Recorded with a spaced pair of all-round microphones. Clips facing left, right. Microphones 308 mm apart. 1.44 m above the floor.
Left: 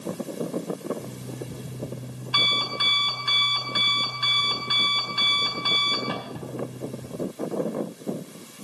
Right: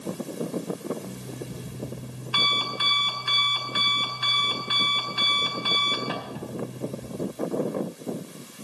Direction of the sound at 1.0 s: 50° left (ahead or behind).